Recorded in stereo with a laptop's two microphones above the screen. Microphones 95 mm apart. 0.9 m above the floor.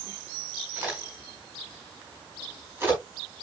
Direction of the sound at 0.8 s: 20° right (ahead or behind).